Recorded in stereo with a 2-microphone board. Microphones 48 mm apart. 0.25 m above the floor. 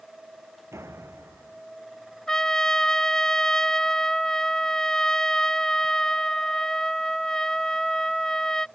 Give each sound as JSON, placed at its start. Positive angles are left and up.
{"t": 0.7, "sound": "a door slam", "side_deg": -65}
{"t": 2.3, "sound": "a trumpet", "side_deg": 10}